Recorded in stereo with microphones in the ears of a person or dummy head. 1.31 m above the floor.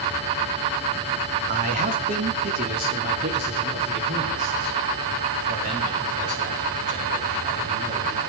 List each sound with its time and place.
1.5 s a man speaking: 40° right (ahead or behind), 1.4 m; by 8.2 s 45° right (ahead or behind), 7.5 m